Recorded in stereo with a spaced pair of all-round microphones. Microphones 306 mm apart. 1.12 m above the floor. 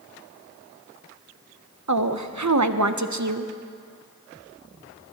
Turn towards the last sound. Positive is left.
turn(degrees=-65)  # may be behind; listen again after turning